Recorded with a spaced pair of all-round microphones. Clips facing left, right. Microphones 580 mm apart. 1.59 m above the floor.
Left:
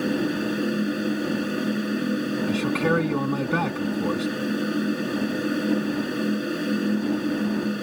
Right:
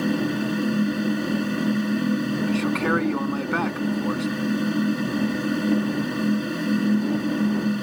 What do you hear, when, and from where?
0.0 s a fan: 25° right (ahead or behind)
2.5 s a man speaking: 55° left (ahead or behind)